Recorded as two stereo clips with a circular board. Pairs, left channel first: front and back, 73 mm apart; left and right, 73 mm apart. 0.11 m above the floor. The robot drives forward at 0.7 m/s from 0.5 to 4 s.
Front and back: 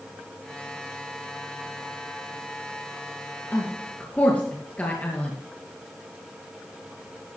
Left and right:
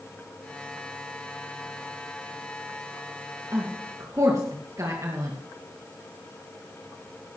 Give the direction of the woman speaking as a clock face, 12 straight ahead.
2 o'clock.